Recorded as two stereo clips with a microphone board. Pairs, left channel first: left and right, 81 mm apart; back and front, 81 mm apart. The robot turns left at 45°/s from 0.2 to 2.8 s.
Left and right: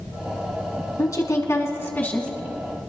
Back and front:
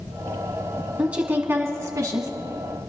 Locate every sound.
1.0 s a woman speaking: 75° left, 2 m; by 2.3 s 15° left, 2 m